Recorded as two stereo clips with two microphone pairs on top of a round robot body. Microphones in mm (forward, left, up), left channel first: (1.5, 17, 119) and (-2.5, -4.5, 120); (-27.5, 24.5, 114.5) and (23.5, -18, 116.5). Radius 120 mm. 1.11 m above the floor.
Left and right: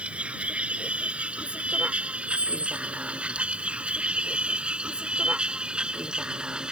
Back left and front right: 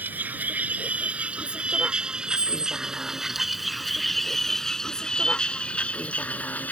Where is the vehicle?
105° right; by 6.7 s 150° right.